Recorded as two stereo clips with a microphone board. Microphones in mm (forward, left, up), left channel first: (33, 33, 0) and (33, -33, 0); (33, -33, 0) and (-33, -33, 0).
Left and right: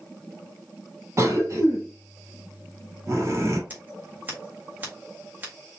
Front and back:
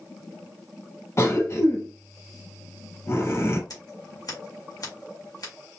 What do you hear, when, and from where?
1.2 s a cough: 45° right, 2.5 m
3.7 s scissors: 30° right, 1.9 m